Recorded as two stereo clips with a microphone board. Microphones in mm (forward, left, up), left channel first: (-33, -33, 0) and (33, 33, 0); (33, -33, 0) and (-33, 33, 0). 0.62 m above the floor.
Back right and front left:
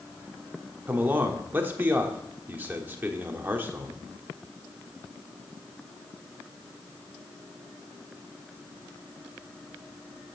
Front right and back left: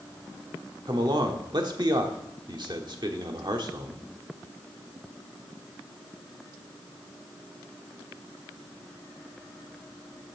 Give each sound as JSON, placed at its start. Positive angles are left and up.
{"t": 0.9, "sound": "a man speaking", "azimuth_deg": 110, "distance_m": 1.2}